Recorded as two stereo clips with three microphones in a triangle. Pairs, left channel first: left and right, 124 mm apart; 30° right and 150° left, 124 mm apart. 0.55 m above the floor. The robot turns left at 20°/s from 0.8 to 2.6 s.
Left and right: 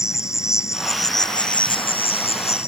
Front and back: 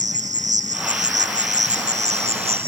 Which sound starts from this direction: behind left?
An insect, at 0.0 s.